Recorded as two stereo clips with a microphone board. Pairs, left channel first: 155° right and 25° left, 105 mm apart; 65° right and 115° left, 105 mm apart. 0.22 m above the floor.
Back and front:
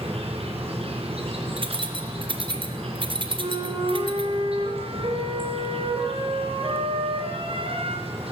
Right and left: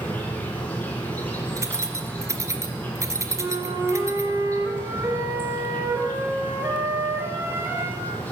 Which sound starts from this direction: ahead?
An insect, at 0.0 s.